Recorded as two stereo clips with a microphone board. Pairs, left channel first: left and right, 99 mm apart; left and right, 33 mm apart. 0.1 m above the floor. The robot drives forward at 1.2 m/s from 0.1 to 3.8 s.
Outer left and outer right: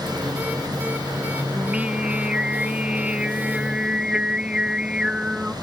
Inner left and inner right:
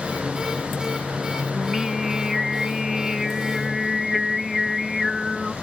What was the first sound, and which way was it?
Singing, 10° right (ahead or behind).